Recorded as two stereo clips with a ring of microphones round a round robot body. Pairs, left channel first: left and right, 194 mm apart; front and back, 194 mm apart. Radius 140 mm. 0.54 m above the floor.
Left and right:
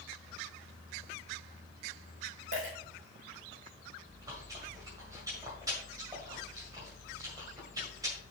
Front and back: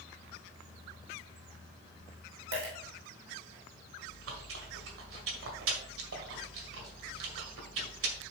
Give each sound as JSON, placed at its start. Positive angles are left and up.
{"t": 2.5, "sound": "a dropped coin", "azimuth_deg": -155, "distance_m": 3.5}
{"t": 4.0, "sound": "chewing", "azimuth_deg": -165, "distance_m": 1.7}